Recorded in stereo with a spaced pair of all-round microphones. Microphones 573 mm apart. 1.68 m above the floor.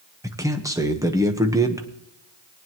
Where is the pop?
I don't hear a pop.